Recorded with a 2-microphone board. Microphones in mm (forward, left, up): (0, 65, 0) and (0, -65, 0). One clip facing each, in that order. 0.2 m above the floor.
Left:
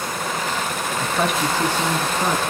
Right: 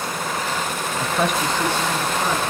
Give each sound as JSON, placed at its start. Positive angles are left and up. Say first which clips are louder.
{"t": 1.0, "sound": "a man speaking", "louder": "even", "side_deg": -10, "distance_m": 1.0}